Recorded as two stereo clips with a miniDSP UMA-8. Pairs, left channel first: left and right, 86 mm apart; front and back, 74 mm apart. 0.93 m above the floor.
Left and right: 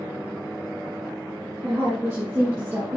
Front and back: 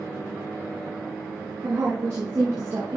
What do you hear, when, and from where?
1.6 s a woman speaking: 145° right, 2 m